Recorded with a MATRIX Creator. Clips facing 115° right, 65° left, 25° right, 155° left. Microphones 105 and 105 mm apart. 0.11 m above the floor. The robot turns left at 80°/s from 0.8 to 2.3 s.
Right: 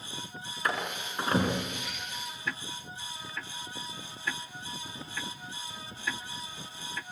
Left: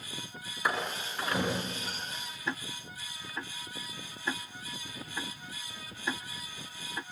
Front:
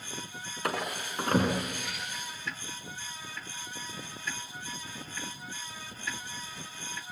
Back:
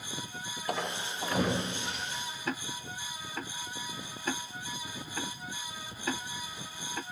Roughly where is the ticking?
Behind left.